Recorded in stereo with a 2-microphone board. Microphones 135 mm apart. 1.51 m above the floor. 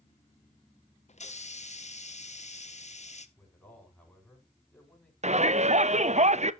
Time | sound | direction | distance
1.1 | a hiss | 55° left (ahead or behind) | 0.8 m
3.4 | a man speaking | 10° left (ahead or behind) | 5.5 m
5.2 | a shout | 55° right (ahead or behind) | 0.6 m